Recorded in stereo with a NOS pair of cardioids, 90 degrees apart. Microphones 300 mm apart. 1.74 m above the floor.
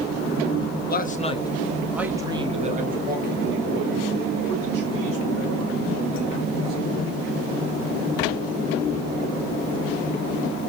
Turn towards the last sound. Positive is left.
turn(degrees=-55)